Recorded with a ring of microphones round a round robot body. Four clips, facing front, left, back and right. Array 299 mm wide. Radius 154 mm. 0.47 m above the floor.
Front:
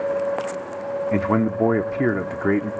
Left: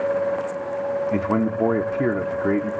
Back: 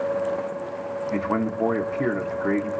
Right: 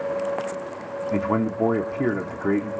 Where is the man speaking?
15° left, 0.8 m.